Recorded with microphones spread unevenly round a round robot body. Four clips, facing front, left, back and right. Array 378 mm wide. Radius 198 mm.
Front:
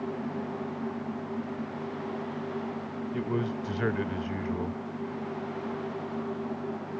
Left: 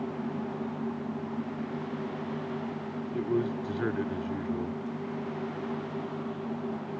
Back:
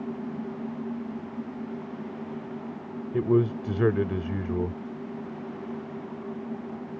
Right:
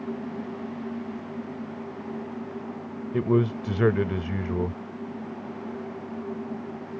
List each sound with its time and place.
3.1 s a man speaking: 120° right